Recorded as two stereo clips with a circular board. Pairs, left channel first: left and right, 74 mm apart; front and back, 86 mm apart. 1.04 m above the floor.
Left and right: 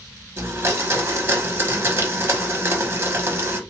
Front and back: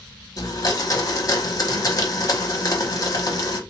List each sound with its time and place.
0.4 s a blender: 40° right, 0.9 m